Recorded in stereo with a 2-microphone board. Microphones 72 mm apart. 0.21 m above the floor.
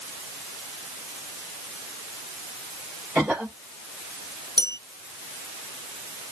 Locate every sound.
3.1 s a cough: 15° right (ahead or behind), 5.5 m
4.6 s a bell: 80° right, 2 m